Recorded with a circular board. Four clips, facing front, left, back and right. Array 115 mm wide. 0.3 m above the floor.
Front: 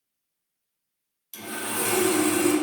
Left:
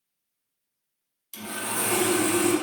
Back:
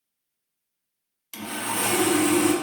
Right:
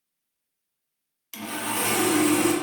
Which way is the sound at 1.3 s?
145° right.